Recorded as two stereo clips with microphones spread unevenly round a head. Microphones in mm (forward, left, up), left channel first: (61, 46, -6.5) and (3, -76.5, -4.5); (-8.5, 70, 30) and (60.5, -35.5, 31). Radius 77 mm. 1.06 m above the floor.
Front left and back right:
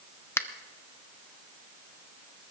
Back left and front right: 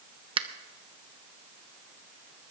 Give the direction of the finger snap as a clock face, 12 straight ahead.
12 o'clock.